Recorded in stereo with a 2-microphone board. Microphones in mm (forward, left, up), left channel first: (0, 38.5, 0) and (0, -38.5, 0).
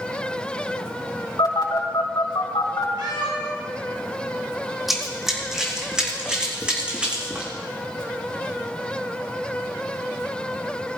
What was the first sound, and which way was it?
A phone buzzing, 75° left (ahead or behind).